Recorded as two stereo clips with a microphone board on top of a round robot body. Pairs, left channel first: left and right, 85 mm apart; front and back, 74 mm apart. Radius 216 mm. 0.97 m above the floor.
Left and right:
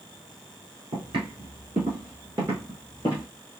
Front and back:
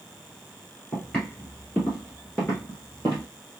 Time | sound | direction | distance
0.9 | footsteps | 80° right | 1.7 m